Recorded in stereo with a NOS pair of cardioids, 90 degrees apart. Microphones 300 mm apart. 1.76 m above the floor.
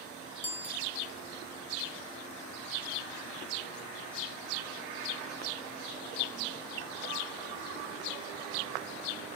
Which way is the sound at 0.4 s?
5° left.